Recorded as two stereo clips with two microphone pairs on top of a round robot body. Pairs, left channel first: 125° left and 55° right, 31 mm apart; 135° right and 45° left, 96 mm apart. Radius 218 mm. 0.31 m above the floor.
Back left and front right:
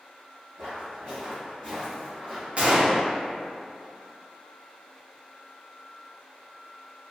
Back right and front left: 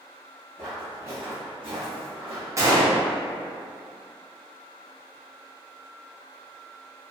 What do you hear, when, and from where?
0.6 s footsteps: 50° right, 0.7 m; by 2.5 s 50° left, 1.0 m
2.6 s a gunshot: 5° right, 0.8 m